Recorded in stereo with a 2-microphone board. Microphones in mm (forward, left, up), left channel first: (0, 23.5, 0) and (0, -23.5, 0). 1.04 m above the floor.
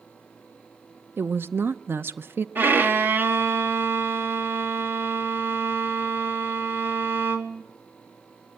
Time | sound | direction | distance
1.2 | a woman speaking | 50° right (ahead or behind) | 0.7 m
2.5 | a violin | 45° right (ahead or behind) | 1.6 m